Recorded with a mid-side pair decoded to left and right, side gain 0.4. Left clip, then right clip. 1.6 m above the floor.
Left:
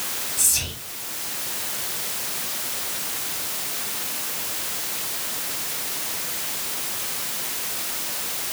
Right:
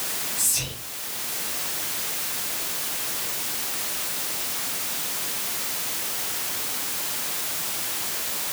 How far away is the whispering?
About 1.6 m.